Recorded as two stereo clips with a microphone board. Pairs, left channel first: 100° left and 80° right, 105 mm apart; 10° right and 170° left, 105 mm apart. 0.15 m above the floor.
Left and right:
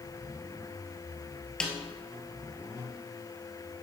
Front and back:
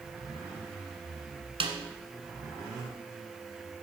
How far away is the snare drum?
About 1.5 m.